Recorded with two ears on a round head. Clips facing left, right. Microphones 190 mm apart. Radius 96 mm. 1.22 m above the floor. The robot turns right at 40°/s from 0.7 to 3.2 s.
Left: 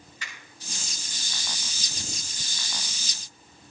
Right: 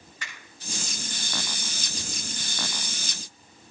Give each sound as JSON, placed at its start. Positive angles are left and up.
{"t": 0.2, "sound": "a finger snap", "side_deg": -45, "distance_m": 6.0}